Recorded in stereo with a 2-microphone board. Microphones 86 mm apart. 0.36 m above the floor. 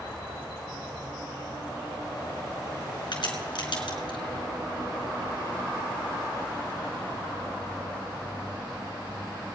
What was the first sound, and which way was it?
A crack, 65° left (ahead or behind).